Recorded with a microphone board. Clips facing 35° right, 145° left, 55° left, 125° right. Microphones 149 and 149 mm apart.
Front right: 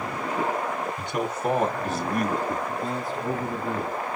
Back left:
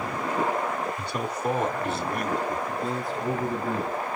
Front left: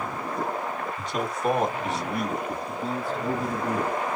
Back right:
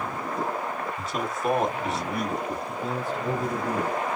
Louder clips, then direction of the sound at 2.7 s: Even, even; 55° left.